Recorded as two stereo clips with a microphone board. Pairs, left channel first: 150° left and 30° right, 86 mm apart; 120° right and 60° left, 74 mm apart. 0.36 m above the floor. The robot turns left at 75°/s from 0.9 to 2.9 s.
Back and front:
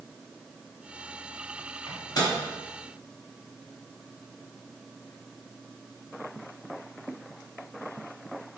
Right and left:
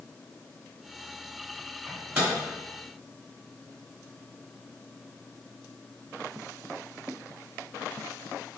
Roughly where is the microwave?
Behind left.